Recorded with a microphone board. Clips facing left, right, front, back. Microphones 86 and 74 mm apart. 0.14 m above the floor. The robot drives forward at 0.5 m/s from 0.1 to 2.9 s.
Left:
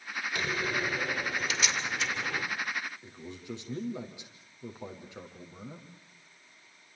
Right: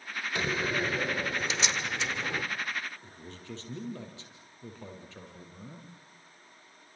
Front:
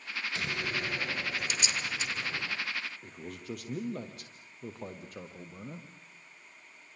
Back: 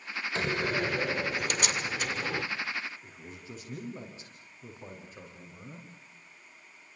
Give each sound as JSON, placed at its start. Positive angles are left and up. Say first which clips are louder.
{"t": 0.3, "sound": "a door slam", "louder": "right 2 dB, back 7 dB", "azimuth_deg": -140, "distance_m": 1.8}
{"t": 3.0, "sound": "a man speaking", "louder": "left 3 dB, front 4 dB", "azimuth_deg": 15, "distance_m": 5.0}